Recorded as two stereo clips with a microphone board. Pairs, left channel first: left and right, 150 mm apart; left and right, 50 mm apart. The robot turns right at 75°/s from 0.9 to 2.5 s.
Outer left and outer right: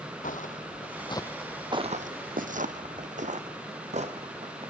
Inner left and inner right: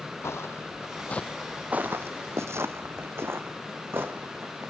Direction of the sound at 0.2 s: 60° left (ahead or behind).